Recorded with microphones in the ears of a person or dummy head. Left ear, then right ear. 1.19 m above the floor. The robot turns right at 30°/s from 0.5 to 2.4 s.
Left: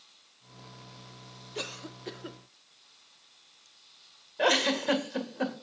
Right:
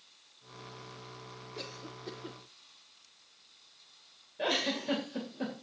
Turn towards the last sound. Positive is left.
turn(degrees=40)  # may be behind; listen again after turning